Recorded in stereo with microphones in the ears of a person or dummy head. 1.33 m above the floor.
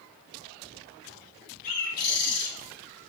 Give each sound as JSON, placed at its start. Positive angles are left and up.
{"t": 1.6, "sound": "a bird", "side_deg": 50, "distance_m": 1.2}